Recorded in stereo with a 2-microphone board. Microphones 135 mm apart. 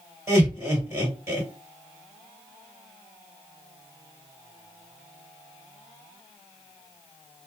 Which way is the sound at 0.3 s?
20° right (ahead or behind).